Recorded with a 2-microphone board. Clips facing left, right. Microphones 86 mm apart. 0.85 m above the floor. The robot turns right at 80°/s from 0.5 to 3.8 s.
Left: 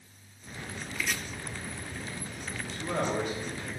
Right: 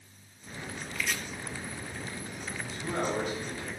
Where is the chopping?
10° left (ahead or behind), 0.7 m; by 1.2 s centre (ahead or behind), 0.7 m.